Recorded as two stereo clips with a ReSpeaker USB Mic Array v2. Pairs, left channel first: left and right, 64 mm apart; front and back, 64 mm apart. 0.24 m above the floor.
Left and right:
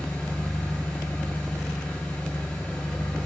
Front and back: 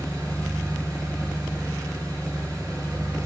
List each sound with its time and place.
0.0 s an engine running: 165° left, 3.5 m